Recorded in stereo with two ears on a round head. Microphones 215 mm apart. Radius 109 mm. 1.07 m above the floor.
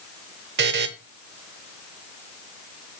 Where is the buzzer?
45° right (ahead or behind), 0.9 m.